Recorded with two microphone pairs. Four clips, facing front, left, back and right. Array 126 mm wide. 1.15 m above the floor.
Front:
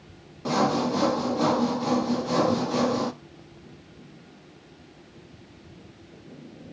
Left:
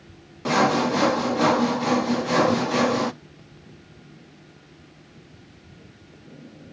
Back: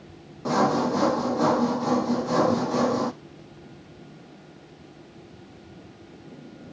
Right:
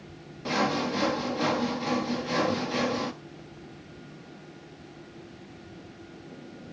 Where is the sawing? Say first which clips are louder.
Left 7 dB, back 2 dB; 95° left, 0.5 m.